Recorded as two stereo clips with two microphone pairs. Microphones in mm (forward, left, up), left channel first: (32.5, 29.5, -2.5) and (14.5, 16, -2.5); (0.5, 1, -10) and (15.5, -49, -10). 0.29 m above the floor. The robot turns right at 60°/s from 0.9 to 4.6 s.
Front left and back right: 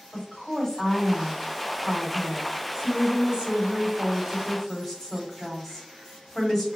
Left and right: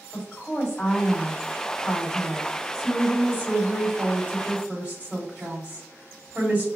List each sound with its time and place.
0.1 s a woman speaking: 100° left, 1.4 m; by 6.7 s 40° right, 1.4 m